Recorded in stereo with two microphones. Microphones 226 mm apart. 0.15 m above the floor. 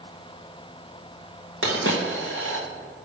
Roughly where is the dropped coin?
Right.